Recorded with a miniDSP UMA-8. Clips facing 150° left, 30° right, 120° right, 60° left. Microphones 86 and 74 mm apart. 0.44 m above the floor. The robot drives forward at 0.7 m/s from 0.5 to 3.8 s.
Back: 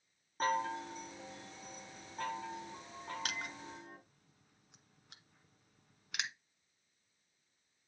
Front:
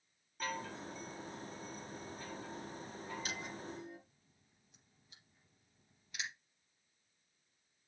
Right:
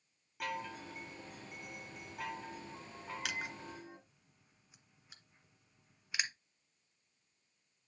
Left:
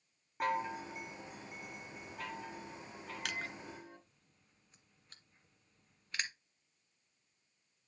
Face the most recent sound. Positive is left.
turn(degrees=160)